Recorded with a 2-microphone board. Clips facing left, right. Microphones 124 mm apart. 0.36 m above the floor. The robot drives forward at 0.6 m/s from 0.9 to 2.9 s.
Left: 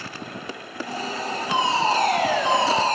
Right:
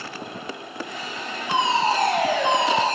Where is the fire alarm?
30° right (ahead or behind), 7 m; by 3.0 s 25° right (ahead or behind), 7.5 m.